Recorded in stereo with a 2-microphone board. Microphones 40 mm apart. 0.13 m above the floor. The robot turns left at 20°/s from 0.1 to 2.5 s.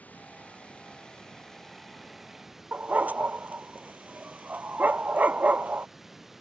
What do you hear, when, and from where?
0.0 s running water: 40° left; by 6.4 s 5° right
2.7 s a dog barking: 45° right (ahead or behind)